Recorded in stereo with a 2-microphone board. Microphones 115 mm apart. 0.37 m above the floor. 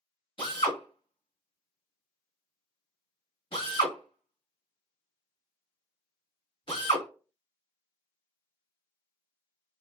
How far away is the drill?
About 1.5 m.